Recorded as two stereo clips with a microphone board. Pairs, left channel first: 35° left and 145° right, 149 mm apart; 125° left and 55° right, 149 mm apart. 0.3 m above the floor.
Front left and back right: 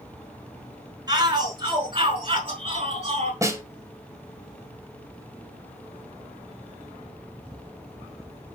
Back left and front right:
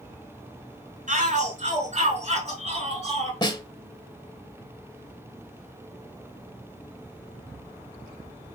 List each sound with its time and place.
1.1 s a shout: 85° right, 4.5 m; by 3.3 s 100° right, 5.5 m
3.4 s a snare drum: 160° left, 1.6 m